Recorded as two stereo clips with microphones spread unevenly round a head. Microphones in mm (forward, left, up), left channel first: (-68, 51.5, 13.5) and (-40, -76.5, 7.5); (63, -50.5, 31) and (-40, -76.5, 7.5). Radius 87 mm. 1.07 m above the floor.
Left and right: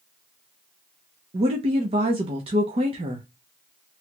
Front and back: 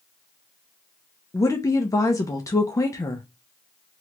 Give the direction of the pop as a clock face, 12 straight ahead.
No pop in this recording.